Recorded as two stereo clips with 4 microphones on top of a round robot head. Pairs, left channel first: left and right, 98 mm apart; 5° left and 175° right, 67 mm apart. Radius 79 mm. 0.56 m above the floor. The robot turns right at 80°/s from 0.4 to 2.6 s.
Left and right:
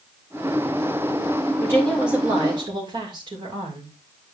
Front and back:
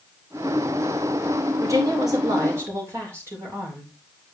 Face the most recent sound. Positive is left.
turn(degrees=-130)